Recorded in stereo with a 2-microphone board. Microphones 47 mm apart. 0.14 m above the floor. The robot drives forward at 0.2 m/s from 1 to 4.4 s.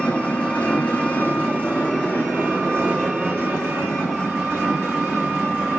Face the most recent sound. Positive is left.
turn(degrees=20)  # may be behind; listen again after turning